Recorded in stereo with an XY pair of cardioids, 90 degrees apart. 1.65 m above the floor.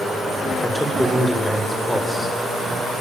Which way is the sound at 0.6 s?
10° left.